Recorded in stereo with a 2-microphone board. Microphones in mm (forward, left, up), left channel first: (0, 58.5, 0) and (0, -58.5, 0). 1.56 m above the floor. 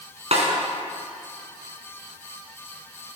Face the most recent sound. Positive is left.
turn(degrees=-65)  # may be behind; listen again after turning